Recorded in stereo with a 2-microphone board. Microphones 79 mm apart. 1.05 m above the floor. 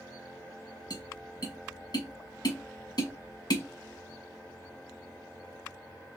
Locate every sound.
0.9 s tapping: 60° left (ahead or behind), 1.0 m